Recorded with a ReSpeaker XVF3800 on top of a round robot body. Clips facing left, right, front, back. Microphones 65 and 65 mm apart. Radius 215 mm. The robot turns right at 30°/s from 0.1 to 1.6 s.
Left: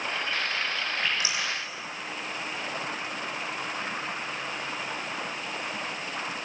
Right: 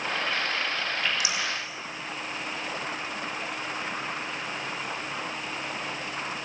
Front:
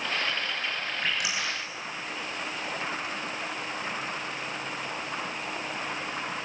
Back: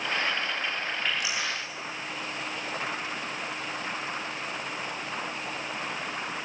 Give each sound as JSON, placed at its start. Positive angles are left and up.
{"t": 1.0, "sound": "dripping", "azimuth_deg": 25, "distance_m": 9.0}